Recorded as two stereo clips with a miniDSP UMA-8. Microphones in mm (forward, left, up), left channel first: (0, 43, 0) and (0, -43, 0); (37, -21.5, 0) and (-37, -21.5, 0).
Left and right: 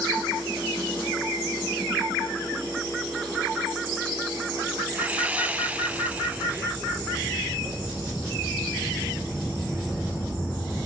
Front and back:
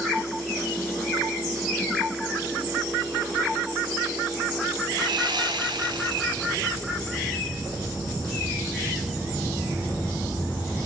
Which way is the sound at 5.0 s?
165° right.